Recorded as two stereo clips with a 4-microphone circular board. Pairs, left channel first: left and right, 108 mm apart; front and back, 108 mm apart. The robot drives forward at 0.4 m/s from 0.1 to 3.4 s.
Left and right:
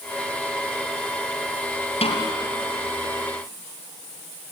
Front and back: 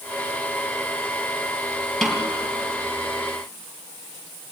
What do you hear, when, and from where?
2.0 s a snare drum: 85° left, 3.5 m; by 2.3 s 90° left, 3.5 m